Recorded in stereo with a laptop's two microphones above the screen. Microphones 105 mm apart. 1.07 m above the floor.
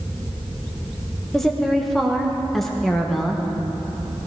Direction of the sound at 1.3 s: Centre (ahead or behind).